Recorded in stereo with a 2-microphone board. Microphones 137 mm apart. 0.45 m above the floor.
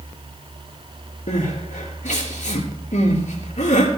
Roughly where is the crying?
Left.